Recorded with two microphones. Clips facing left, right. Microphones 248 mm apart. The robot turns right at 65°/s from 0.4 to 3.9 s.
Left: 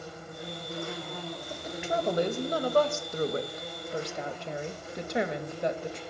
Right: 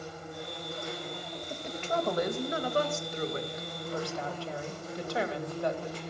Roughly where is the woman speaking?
Ahead.